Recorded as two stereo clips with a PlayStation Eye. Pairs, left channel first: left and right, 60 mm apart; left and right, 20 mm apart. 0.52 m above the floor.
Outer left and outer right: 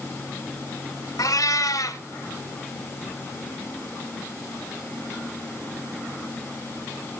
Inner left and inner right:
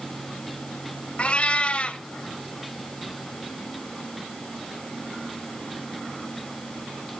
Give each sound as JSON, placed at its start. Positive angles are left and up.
{"t": 1.2, "sound": "a cat meowing", "side_deg": 80, "distance_m": 1.1}